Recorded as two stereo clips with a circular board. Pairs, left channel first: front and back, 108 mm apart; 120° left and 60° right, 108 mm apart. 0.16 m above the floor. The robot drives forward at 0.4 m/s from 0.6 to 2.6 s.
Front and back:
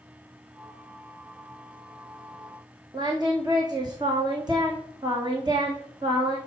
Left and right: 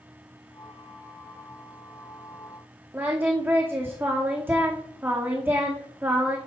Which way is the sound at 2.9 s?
130° right.